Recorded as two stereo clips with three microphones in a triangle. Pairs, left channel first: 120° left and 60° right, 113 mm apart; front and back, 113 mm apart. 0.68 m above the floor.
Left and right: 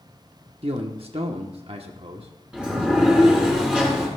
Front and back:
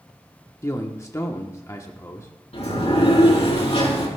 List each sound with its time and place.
0.6 s a man speaking: 60° right, 1.4 m
2.5 s a sliding door: 20° left, 4 m